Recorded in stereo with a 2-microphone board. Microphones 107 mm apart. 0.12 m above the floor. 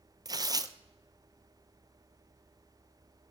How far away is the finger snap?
I don't hear a finger snap.